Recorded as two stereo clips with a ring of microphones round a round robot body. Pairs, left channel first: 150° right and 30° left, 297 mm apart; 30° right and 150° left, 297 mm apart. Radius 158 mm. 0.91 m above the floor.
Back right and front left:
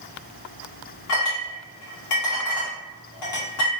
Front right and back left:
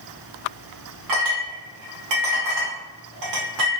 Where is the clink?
175° left, 1.1 m.